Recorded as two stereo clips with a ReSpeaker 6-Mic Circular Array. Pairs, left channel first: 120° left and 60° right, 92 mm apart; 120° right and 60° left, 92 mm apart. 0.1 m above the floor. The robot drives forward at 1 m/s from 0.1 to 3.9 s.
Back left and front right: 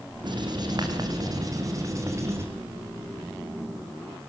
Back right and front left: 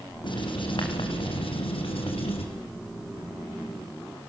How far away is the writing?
About 4.5 m.